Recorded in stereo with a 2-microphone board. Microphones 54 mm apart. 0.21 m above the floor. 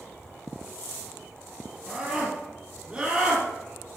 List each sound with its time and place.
1.9 s a scream: 25° right (ahead or behind), 4 m; by 3.5 s 30° right (ahead or behind), 5 m